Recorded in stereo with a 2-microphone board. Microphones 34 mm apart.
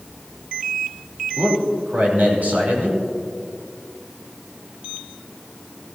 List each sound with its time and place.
1.4 s a man speaking: 60° right (ahead or behind), 3 m